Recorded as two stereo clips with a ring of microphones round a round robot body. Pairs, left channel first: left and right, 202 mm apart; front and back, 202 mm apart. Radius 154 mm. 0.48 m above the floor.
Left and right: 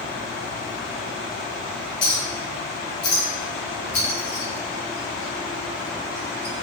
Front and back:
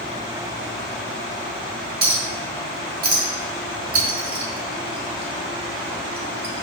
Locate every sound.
2.0 s a clink: 145° left, 1.1 m